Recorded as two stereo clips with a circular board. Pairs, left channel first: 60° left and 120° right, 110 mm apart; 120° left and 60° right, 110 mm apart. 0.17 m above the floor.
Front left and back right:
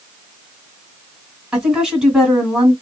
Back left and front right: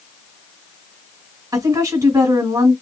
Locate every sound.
1.5 s a woman speaking: 40° right, 1.7 m